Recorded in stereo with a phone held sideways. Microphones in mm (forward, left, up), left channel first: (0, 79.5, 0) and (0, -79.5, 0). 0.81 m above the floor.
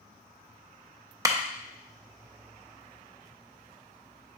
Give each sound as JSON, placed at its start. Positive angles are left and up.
{"t": 1.2, "sound": "a clap", "side_deg": -20, "distance_m": 0.5}